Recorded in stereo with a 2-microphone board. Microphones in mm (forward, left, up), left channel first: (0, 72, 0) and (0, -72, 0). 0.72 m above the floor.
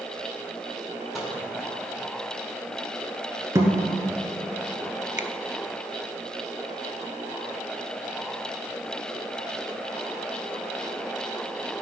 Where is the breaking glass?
No breaking glass in this recording.